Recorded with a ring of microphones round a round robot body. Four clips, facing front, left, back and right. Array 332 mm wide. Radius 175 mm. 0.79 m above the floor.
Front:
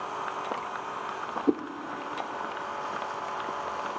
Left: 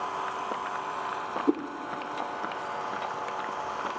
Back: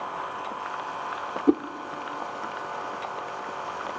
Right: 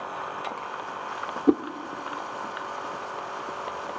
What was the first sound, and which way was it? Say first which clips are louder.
A whoosh: right 6 dB, back 5 dB; 115° right.